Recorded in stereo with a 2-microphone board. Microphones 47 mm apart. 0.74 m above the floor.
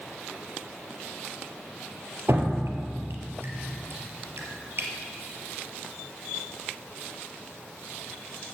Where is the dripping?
65° right (ahead or behind), 3 m.